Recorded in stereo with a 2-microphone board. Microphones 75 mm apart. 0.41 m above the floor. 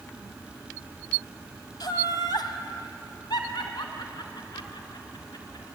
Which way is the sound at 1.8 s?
70° left (ahead or behind).